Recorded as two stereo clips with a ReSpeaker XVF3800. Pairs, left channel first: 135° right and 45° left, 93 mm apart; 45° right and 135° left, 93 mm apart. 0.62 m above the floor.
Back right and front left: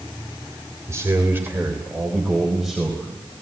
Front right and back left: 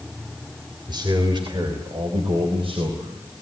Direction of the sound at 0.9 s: 100° left.